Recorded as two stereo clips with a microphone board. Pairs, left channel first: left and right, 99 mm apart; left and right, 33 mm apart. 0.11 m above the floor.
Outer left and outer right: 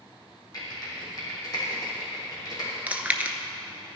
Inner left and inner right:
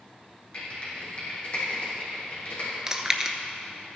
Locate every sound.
0.5 s typing on a keyboard: 45° left (ahead or behind), 4.5 m
2.9 s chewing: 15° right (ahead or behind), 0.8 m